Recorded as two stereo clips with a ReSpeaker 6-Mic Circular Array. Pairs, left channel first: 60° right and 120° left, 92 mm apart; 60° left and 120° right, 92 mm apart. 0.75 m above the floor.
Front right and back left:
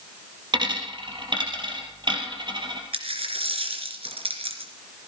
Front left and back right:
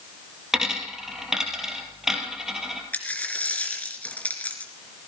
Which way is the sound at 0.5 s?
155° left.